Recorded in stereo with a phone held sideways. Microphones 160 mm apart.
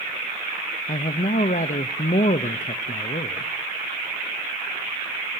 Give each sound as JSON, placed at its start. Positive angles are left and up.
{"t": 0.9, "sound": "a man speaking", "side_deg": 55, "distance_m": 0.6}